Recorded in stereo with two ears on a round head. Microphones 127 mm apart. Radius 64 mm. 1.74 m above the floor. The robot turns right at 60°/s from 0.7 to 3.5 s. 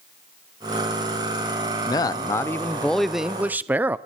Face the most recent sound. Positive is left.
turn(degrees=-10)  # may be behind; listen again after turning